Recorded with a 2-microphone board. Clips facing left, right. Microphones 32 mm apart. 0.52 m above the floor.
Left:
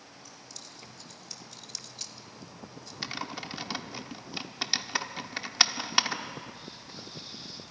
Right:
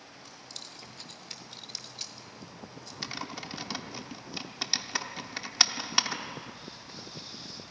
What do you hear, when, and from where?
0.2 s keys jangling: 50° right (ahead or behind), 1.7 m; by 2.9 s 5° right (ahead or behind), 2.5 m
3.0 s typing on a keyboard: 10° left (ahead or behind), 1.0 m